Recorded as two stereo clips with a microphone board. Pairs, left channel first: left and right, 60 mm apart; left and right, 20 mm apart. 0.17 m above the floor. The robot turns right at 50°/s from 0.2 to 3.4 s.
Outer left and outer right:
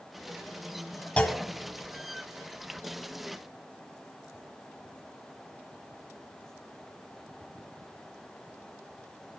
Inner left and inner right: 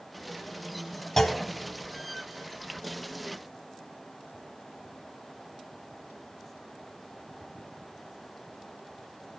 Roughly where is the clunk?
Left.